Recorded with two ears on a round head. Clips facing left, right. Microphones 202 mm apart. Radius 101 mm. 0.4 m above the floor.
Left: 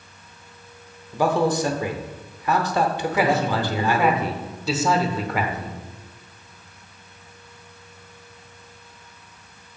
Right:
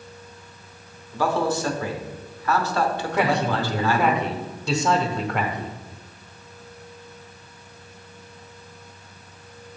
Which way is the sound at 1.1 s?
15° left (ahead or behind).